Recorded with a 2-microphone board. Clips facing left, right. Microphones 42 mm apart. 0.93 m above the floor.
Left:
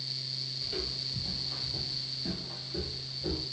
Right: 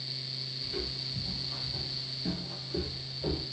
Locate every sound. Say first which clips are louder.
0.6 s footsteps: even; 50° left (ahead or behind), 1.4 m; by 3.4 s 40° right (ahead or behind), 1.6 m